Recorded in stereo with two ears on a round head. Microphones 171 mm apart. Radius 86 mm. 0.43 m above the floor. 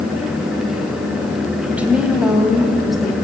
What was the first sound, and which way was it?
A woman speaking, 10° right (ahead or behind).